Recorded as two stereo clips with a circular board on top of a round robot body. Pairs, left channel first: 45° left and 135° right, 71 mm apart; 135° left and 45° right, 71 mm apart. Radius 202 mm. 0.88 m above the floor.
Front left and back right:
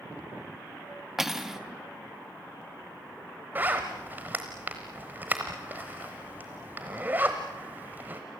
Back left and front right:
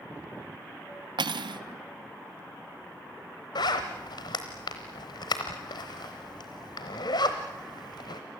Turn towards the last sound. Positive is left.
turn(degrees=155)